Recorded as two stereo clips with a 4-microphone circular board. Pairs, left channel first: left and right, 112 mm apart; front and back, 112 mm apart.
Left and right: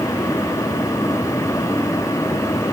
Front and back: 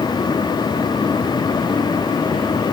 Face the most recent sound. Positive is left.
No sound to turn to.